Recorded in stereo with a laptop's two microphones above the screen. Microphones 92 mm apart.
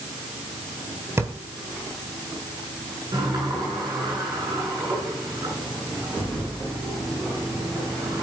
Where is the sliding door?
40° right (ahead or behind), 8.5 m.